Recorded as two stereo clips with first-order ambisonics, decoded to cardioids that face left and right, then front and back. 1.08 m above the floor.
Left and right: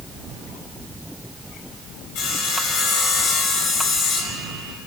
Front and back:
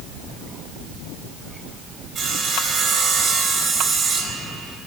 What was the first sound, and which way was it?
Sawing, 105° left.